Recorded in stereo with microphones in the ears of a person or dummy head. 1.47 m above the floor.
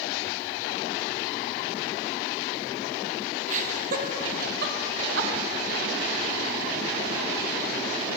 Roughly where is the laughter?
Right.